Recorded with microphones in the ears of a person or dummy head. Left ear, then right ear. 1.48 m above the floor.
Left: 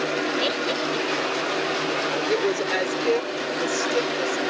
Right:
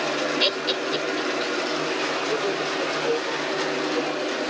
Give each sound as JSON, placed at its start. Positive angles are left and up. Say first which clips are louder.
{"t": 0.4, "sound": "laughter", "louder": "right 1 dB", "side_deg": -35}
{"t": 2.3, "sound": "a woman speaking", "louder": "left 2 dB", "side_deg": 80}